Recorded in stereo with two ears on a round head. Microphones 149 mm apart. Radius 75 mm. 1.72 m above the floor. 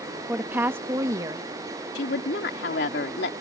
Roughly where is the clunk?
No clunk in this recording.